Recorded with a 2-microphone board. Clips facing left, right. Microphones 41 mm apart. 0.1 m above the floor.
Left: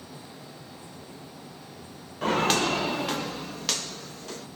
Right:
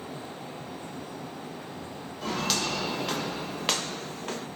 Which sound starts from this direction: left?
Footsteps, at 2.2 s.